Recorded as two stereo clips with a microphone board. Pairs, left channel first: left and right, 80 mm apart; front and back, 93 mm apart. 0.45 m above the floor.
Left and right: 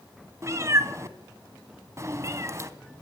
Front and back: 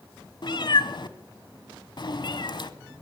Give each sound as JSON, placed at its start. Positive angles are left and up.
{"t": 0.4, "sound": "a cat meowing", "azimuth_deg": -35, "distance_m": 0.9}